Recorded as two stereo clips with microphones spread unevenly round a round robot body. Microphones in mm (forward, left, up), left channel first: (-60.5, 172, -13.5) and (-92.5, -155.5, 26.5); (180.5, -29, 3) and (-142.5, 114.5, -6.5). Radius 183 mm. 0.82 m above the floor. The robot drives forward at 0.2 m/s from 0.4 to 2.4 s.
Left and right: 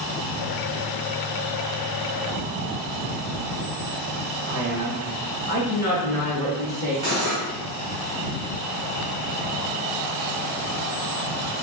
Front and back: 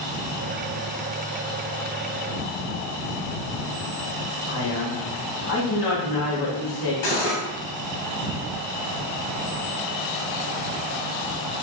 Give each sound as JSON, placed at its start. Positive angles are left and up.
{"t": 4.5, "sound": "a man speaking", "azimuth_deg": -60, "distance_m": 1.3}
{"t": 7.0, "sound": "cutlery clinking", "azimuth_deg": -35, "distance_m": 1.2}